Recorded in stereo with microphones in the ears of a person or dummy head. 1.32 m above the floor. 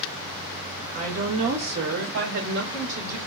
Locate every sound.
0.9 s a woman speaking: 35° right (ahead or behind), 1.7 m; by 3.2 s 65° right (ahead or behind), 2.5 m